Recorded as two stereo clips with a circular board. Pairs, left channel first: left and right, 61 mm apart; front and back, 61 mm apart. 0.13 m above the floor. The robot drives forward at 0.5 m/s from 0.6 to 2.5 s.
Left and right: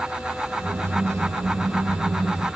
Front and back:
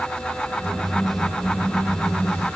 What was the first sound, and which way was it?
Only background noise.